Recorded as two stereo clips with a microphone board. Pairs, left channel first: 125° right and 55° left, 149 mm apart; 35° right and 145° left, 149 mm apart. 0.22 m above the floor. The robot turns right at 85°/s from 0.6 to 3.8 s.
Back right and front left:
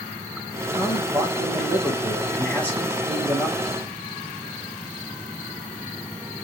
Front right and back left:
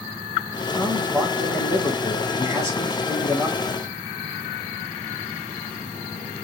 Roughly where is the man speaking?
Ahead.